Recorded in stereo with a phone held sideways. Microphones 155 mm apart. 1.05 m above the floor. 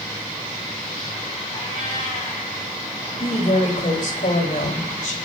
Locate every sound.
1.5 s a cat meowing: 50° left (ahead or behind), 5 m
3.1 s a woman speaking: 55° left (ahead or behind), 4.5 m